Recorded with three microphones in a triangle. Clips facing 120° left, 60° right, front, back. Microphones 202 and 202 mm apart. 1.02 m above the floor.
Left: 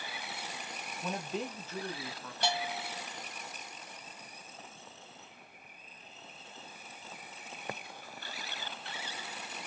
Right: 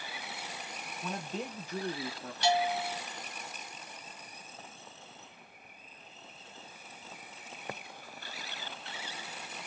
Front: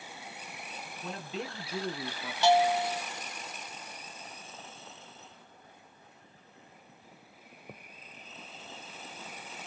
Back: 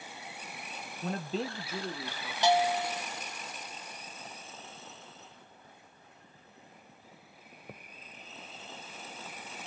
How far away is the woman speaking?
About 1.0 m.